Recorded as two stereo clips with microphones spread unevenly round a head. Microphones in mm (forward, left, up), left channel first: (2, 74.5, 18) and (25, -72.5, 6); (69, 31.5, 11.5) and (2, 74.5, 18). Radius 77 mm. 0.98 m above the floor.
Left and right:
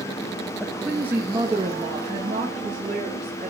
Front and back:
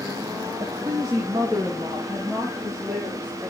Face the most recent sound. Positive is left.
turn(degrees=-135)